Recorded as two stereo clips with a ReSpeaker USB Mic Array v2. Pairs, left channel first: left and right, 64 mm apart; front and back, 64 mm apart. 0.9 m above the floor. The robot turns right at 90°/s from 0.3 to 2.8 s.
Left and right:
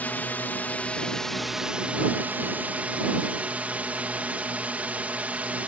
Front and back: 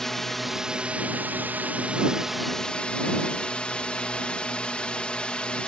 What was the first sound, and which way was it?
A drone, 80° left.